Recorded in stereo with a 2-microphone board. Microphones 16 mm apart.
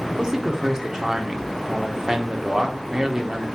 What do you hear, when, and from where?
0.2 s a man speaking: 50° right (ahead or behind), 0.8 m